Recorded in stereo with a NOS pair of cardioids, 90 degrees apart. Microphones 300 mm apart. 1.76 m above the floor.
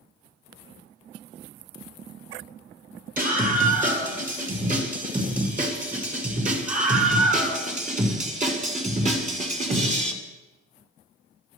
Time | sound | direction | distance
3.2 | a scream | 30° right | 9.5 m